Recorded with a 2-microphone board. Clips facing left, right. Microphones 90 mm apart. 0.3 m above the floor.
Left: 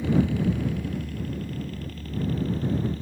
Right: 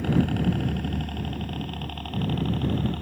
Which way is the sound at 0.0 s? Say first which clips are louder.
Even; 55° right (ahead or behind).